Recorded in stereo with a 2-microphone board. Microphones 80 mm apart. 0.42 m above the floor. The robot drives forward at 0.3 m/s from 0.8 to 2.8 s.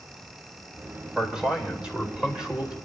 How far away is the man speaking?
About 1.8 m.